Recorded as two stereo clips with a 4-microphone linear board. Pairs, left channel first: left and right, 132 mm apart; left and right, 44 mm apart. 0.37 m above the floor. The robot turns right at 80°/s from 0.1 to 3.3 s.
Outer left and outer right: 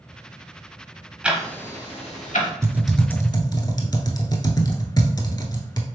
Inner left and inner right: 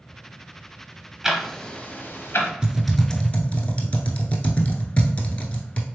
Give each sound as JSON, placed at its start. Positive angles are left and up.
{"t": 1.2, "sound": "ticking", "side_deg": -10, "distance_m": 0.8}
{"t": 2.6, "sound": "typing on a keyboard", "side_deg": -20, "distance_m": 0.8}